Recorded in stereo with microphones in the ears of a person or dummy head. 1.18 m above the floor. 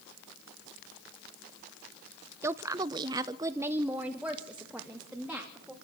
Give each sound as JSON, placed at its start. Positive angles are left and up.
{"t": 2.4, "sound": "a woman speaking", "side_deg": -15, "distance_m": 0.8}